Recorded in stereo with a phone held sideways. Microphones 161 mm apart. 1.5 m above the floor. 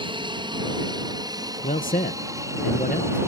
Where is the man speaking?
55° left (ahead or behind).